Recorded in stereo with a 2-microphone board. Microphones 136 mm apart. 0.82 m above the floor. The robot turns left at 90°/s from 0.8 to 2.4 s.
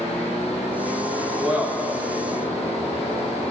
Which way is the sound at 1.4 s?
5° right (ahead or behind).